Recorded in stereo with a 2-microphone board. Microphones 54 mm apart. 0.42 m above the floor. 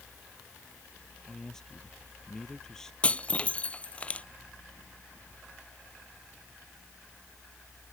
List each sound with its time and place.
1.3 s a man speaking: 10° left (ahead or behind)
3.0 s breaking glass: 25° left (ahead or behind)